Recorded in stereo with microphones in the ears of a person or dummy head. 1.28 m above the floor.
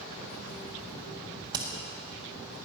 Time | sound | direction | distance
1.5 | hammering | 20° right (ahead or behind) | 1.4 m